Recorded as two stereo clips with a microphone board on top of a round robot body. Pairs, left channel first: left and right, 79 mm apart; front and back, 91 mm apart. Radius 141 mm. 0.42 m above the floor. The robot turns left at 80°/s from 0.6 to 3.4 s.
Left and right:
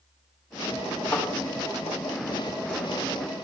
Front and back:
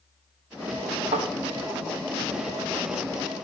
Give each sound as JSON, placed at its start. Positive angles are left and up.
{"t": 1.1, "sound": "a thud", "azimuth_deg": 170, "distance_m": 3.0}